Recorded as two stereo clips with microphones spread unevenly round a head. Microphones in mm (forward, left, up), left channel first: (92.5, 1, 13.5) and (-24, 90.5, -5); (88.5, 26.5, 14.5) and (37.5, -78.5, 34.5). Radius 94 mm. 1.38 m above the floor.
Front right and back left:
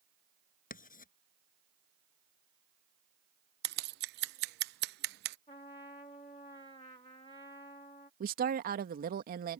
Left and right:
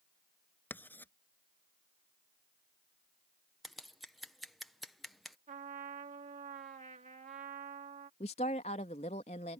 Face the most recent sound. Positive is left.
turn(degrees=120)